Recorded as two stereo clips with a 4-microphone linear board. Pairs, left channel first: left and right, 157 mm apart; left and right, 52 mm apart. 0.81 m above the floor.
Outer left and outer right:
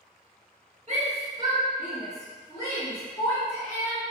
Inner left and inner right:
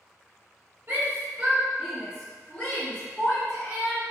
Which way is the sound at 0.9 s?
40° right (ahead or behind).